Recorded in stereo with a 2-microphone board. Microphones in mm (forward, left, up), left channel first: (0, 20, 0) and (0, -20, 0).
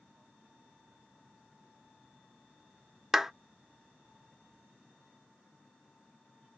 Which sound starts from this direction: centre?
A clap, at 3.1 s.